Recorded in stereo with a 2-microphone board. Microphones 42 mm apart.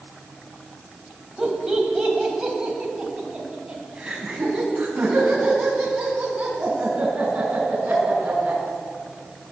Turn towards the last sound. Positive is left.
turn(degrees=-30)  # may be behind; listen again after turning